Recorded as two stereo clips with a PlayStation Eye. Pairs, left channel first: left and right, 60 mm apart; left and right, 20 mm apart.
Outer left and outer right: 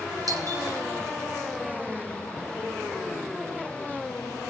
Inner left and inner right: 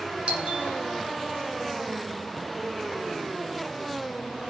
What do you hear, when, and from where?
0.3 s a doorbell: 70° right (ahead or behind), 4 m